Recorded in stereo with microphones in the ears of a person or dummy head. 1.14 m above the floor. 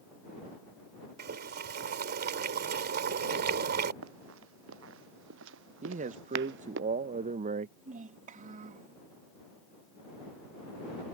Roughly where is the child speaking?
Right.